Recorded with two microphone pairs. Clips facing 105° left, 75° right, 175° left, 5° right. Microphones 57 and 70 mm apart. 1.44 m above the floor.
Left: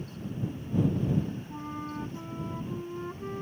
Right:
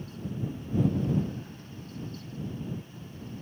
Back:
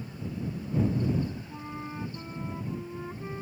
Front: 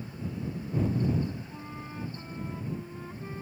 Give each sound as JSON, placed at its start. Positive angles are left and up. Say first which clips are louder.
{"t": 1.5, "sound": "a flute", "louder": "left 8 dB, back 3 dB", "azimuth_deg": 100}